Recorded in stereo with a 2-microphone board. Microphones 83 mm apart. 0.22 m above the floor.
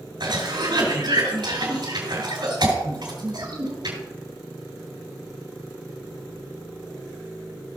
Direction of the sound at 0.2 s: 70° right (ahead or behind).